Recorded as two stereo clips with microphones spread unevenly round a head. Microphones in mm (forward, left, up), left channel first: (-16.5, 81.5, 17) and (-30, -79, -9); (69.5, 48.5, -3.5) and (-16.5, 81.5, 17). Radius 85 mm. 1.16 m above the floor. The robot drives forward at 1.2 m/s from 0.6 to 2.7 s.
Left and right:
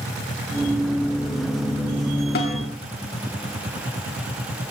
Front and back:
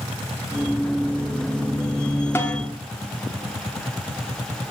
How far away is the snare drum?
About 2.5 m.